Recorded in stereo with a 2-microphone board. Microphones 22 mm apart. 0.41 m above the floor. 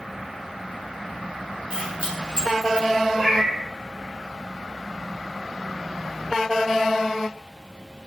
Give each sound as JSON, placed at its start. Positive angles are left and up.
{"t": 1.7, "sound": "keys jangling", "side_deg": -50, "distance_m": 0.9}
{"t": 3.1, "sound": "a cat meowing", "side_deg": -65, "distance_m": 0.9}